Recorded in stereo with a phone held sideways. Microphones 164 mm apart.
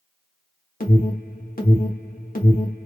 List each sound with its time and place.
0.8 s an alarm: 55° left (ahead or behind), 1.0 m